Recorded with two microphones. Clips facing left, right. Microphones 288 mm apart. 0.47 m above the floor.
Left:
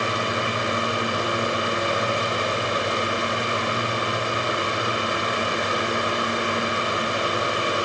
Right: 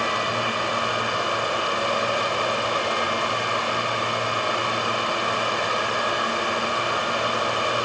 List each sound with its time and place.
Only background noise.